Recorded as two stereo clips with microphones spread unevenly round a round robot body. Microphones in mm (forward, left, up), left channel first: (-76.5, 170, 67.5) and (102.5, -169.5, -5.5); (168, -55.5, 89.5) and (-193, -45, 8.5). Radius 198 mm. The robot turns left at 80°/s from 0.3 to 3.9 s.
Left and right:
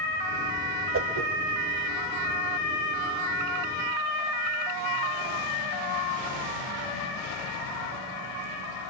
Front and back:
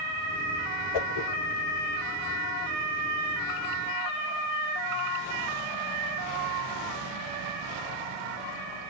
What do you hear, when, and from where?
0.9 s a whoosh: straight ahead, 1.2 m; by 1.3 s 25° right, 1.2 m